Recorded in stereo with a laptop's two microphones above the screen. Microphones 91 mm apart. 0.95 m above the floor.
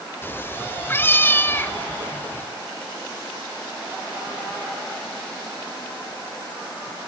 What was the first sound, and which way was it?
A cat meowing, 20° left (ahead or behind).